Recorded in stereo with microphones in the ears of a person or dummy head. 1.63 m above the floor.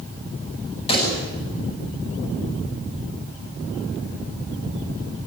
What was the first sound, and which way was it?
A pop, 35° left (ahead or behind).